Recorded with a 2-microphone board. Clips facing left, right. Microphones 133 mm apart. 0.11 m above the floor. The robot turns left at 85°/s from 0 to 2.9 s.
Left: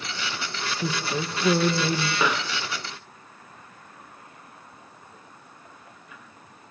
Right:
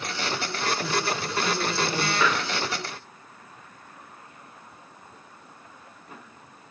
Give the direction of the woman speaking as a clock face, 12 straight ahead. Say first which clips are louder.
Even; 7 o'clock.